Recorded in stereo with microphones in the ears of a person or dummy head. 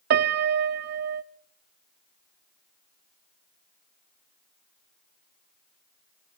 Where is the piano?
40° right (ahead or behind), 0.8 m.